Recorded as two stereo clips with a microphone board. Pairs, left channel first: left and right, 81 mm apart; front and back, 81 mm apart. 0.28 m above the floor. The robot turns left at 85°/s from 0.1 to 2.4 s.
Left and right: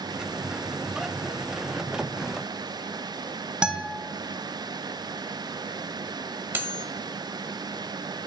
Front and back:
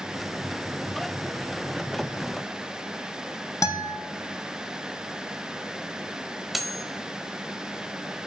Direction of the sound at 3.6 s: 15° right.